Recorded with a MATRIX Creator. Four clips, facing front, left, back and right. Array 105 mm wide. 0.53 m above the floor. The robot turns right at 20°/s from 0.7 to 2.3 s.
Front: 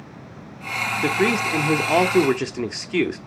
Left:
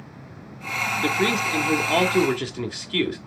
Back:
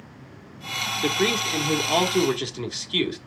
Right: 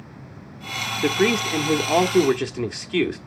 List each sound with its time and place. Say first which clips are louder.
1.0 s a man speaking: right 4 dB, front 3 dB; 45° right, 1.2 m; by 3.2 s 20° right, 1.2 m